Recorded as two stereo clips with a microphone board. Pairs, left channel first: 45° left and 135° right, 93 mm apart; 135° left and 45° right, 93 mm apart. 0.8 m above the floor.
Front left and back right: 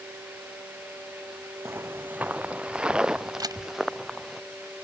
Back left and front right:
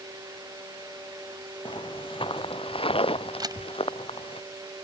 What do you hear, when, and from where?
1.6 s footsteps: 160° left; by 4.4 s 135° left
3.4 s a camera shutter: 90° right